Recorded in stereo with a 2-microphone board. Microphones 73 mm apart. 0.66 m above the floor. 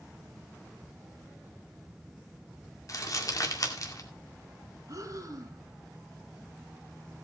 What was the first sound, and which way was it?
Crumpling, 50° left (ahead or behind).